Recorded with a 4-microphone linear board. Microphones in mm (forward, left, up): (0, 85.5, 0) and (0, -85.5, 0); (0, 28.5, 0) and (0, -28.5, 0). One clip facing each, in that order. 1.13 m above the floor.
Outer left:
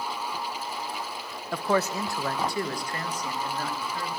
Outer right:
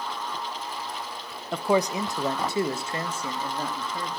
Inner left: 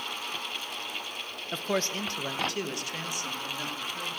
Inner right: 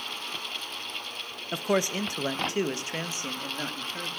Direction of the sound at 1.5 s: 5° right (ahead or behind).